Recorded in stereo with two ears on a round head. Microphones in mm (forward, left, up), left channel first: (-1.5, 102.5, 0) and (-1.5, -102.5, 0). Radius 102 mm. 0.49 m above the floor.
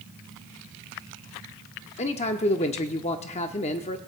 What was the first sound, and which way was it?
A man speaking, 30° left (ahead or behind).